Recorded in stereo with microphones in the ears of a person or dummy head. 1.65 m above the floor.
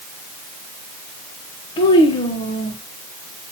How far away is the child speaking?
About 1.3 m.